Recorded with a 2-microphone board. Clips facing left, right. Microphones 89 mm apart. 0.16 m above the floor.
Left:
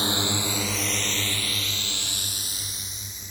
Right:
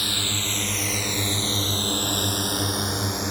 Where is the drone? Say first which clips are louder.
Left 4 dB; 25° left (ahead or behind); by 3.3 s 70° right (ahead or behind).